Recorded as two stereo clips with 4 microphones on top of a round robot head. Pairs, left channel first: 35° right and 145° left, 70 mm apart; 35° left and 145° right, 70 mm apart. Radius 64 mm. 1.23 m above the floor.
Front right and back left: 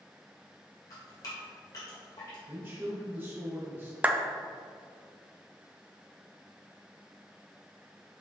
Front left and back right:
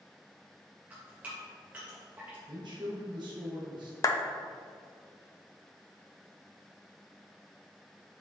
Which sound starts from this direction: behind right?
A man speaking, at 2.5 s.